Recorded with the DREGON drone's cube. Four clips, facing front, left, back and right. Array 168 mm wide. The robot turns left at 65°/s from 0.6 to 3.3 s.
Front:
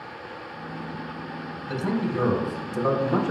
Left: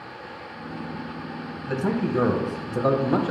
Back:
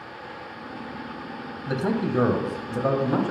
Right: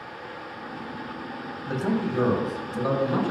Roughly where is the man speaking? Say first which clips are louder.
Left 1 dB, back 2 dB; behind.